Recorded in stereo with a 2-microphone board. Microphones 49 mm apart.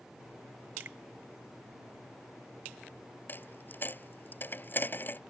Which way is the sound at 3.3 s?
40° left (ahead or behind).